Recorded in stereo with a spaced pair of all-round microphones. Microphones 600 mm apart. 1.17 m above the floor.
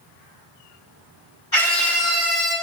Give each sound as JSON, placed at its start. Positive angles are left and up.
{"t": 1.5, "sound": "a scream", "side_deg": 45, "distance_m": 3.5}